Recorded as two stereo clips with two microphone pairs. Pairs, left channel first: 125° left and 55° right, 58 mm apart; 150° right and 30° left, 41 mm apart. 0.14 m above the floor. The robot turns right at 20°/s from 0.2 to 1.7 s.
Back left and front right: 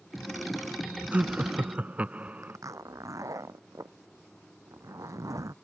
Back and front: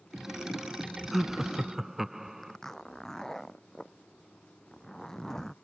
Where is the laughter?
55° right; by 2.6 s 40° right.